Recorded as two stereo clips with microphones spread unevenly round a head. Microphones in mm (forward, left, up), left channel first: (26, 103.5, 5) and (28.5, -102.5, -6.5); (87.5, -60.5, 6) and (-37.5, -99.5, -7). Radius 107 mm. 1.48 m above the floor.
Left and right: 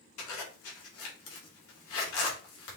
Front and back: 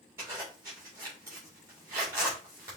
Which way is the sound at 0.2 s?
120° left.